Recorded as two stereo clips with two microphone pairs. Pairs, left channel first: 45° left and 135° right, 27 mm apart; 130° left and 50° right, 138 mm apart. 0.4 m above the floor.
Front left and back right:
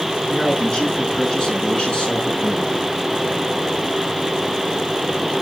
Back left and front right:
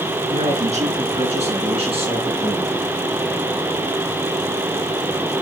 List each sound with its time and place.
0.3 s a man speaking: 20° right, 6 m; by 2.8 s straight ahead, 5 m